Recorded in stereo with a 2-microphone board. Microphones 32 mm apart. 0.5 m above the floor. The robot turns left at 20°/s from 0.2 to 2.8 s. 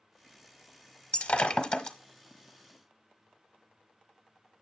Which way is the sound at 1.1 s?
45° left (ahead or behind).